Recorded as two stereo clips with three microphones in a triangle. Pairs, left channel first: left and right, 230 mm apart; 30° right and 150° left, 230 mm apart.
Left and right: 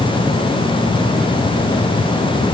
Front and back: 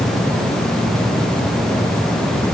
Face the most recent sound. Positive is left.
No sound to turn to.